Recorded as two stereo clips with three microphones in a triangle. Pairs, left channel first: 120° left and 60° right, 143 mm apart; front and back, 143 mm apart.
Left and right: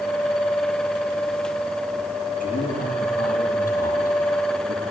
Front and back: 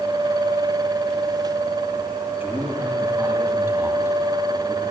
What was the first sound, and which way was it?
A man speaking, 105° left.